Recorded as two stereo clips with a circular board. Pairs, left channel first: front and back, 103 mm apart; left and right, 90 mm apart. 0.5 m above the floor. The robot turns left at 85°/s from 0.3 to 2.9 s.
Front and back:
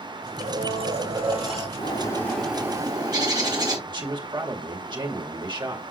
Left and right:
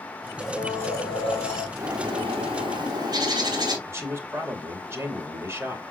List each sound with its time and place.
0.4 s a blender: 175° right, 6.5 m; by 1.7 s 75° left, 6.5 m
1.8 s a bird: 35° right, 3 m; by 3.8 s 130° right, 3 m
3.9 s a man speaking: 145° right, 2 m